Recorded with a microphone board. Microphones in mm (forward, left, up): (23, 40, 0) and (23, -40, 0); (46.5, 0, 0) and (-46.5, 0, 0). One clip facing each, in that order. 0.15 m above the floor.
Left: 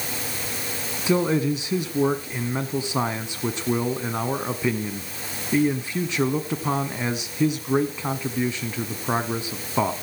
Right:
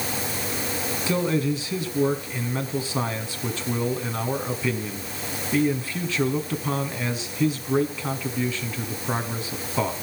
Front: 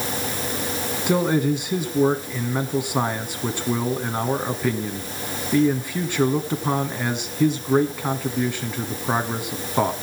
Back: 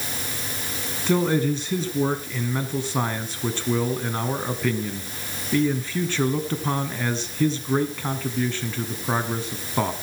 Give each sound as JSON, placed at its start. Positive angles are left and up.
{"t": 1.1, "sound": "a man speaking", "azimuth_deg": 55, "distance_m": 1.3}